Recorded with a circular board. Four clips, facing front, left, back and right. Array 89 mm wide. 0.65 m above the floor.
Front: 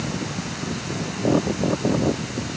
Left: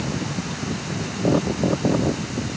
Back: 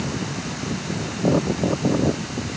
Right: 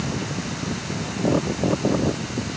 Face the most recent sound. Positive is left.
No sound to turn to.